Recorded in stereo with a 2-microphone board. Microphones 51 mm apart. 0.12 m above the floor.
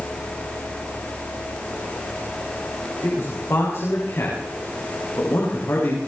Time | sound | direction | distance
3.0 | a man speaking | 55° left (ahead or behind) | 9 m